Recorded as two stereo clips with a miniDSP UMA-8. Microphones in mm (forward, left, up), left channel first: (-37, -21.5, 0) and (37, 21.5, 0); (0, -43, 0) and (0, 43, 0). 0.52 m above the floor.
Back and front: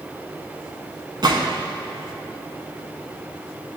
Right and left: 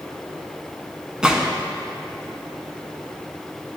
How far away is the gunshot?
About 0.8 m.